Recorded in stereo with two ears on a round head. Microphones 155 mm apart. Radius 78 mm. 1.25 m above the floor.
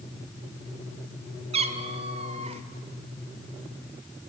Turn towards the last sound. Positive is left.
turn(degrees=-35)  # may be behind; listen again after turning